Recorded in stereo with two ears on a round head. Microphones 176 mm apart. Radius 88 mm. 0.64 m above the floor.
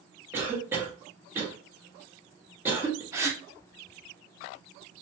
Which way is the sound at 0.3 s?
10° right (ahead or behind).